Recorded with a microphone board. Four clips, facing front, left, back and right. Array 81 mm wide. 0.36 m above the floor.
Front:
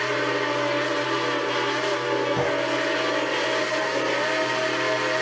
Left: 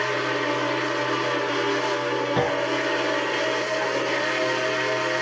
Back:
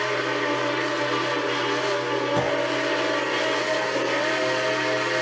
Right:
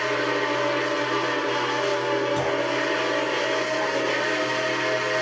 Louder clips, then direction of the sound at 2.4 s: Left 1 dB, even; 95° left.